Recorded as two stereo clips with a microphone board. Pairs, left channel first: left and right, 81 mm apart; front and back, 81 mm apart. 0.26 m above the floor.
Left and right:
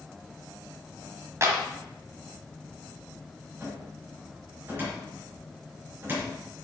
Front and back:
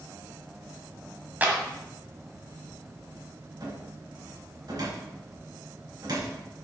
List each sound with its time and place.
1.4 s a clap: 120° right, 1.5 m
3.6 s a cupboard door: 150° right, 3 m